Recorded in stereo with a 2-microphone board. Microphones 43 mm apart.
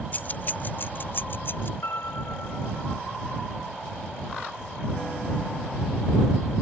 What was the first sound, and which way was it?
Keys jangling, 40° left (ahead or behind).